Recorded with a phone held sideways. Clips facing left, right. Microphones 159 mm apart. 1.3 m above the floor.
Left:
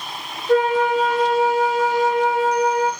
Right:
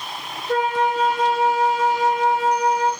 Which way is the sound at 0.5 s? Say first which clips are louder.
Left 4 dB; 50° left (ahead or behind).